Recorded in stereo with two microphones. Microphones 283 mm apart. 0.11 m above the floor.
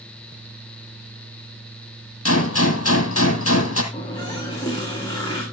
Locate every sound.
2.2 s a gunshot: 55° left (ahead or behind), 1.8 m
3.9 s a running tap: 15° left (ahead or behind), 6 m